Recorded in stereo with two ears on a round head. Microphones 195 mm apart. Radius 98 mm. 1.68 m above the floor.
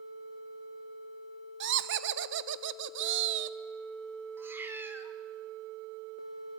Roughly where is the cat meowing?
Centre.